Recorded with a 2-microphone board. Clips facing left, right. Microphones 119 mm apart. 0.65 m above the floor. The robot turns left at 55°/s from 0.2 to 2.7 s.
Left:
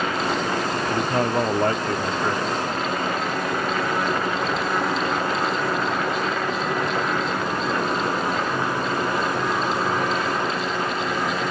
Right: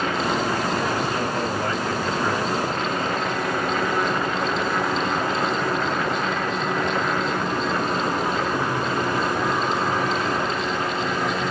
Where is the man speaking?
115° left, 1.5 m; by 2.5 s 25° left, 1.5 m.